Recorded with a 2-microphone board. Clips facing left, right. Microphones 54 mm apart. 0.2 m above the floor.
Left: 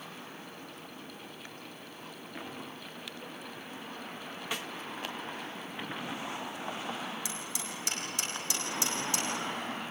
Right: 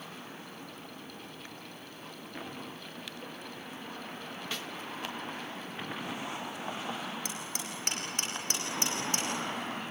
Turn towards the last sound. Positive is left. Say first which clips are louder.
# even
turn(degrees=-45)  # may be behind; listen again after turning